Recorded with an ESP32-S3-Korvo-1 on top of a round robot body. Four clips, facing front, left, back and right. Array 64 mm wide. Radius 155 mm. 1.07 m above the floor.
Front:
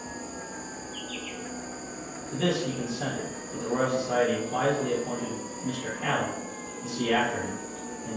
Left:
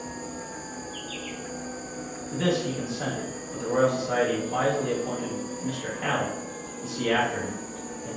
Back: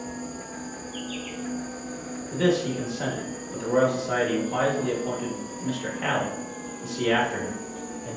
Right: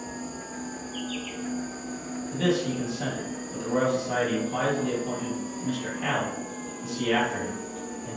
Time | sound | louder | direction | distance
0.0 | an insect | even, back 3 dB | 105° left | 1.3 m
2.3 | a man speaking | even, back 4 dB | 160° left | 1.2 m